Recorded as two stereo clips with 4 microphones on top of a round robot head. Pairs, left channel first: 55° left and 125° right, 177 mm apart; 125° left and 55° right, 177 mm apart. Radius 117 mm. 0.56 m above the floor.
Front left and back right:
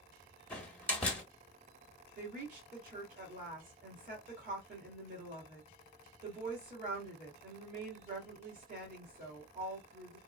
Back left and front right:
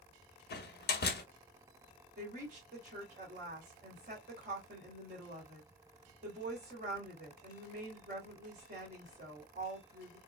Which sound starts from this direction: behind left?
A door slam, at 0.5 s.